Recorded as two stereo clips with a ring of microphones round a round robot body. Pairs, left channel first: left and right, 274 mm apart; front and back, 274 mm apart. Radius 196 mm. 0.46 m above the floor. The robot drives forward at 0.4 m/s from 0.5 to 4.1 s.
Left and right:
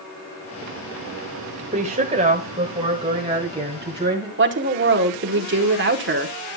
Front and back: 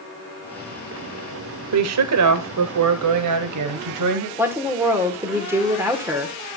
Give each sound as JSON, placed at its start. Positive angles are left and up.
{"t": 1.7, "sound": "a woman speaking", "azimuth_deg": -160, "distance_m": 1.4}
{"t": 4.4, "sound": "a woman speaking", "azimuth_deg": -100, "distance_m": 1.5}